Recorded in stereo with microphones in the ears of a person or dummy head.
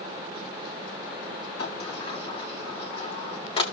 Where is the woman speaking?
No woman speaking in this recording.